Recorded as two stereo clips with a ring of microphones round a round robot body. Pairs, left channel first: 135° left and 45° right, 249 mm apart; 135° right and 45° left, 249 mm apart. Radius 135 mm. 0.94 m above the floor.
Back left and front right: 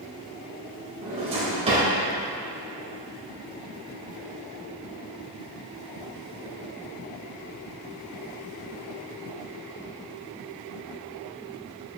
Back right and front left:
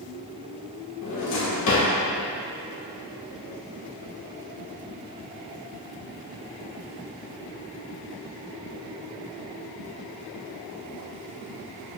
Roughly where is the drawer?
Behind right.